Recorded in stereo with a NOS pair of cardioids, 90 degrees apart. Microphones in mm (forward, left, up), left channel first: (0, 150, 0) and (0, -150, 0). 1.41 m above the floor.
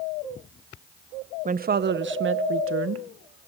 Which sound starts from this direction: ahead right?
A woman speaking, at 1.4 s.